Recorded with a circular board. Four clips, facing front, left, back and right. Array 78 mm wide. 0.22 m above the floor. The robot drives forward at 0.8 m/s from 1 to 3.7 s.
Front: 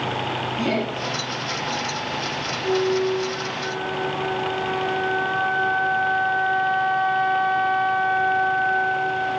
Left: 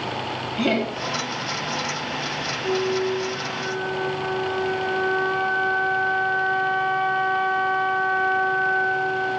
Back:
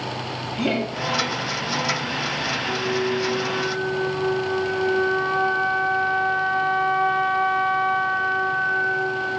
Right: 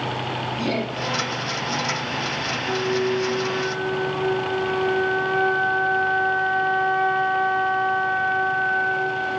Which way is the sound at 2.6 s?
130° right.